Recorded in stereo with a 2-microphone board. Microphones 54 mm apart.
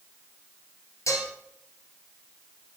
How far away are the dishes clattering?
About 2.5 m.